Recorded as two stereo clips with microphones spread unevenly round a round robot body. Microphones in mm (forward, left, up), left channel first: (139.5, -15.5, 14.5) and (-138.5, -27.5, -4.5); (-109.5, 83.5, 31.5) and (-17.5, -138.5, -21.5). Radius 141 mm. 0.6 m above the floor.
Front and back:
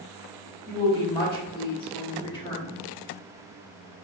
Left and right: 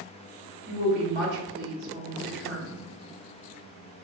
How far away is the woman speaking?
About 1.9 m.